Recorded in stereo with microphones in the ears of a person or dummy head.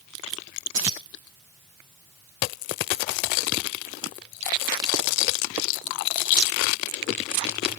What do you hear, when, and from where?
0.7 s keys jangling: 65° right (ahead or behind), 1.5 m